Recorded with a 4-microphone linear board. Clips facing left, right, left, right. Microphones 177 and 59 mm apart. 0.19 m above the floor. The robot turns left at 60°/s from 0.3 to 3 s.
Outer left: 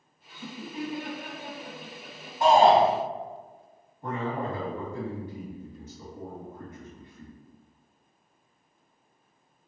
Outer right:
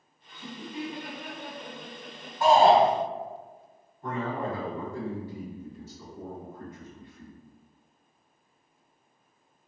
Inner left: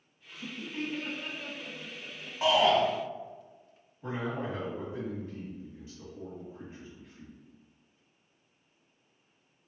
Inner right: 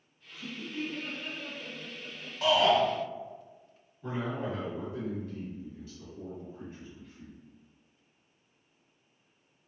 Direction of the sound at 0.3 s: 25° left (ahead or behind).